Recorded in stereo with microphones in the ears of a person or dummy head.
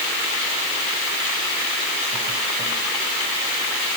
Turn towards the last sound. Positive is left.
No sound to turn to.